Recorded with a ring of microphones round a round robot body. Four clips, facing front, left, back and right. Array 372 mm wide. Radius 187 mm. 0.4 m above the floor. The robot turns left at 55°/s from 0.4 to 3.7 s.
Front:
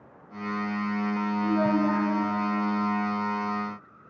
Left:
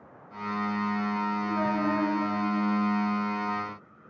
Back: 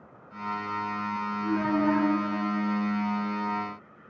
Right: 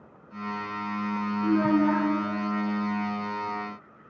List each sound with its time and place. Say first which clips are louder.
1.4 s a child speaking: right 9 dB, front 1 dB; 90° right, 3 m; by 2.1 s 130° right, 3 m